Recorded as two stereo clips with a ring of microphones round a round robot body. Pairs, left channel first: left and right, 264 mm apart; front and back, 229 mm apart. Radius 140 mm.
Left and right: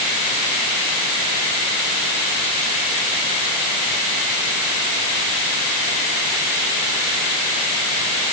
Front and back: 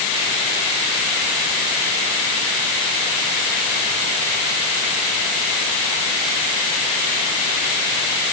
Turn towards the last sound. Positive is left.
No sound to turn to.